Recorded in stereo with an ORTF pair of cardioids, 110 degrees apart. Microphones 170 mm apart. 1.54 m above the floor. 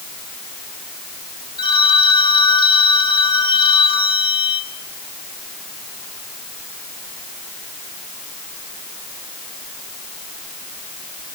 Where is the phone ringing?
30° left, 5.5 m.